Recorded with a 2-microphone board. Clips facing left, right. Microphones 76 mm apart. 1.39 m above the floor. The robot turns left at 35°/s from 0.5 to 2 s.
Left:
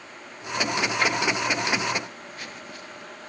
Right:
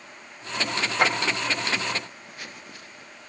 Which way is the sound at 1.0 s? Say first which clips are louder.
Right 4 dB; 55° right (ahead or behind).